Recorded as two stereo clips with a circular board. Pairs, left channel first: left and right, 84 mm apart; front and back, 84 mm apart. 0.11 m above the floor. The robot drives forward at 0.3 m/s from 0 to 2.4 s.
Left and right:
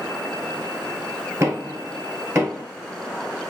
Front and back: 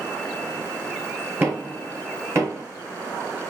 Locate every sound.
1.4 s knocking: 130° right, 1.2 m; by 2.6 s 140° right, 1.3 m